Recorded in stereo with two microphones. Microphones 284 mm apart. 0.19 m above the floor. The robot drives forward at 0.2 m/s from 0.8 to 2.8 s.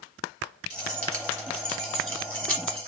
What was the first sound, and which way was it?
Keys jangling, 50° right (ahead or behind).